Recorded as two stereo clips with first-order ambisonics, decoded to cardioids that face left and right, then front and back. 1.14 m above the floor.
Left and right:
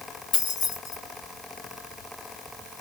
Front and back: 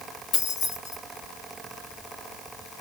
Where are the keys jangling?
50° left, 1.6 m.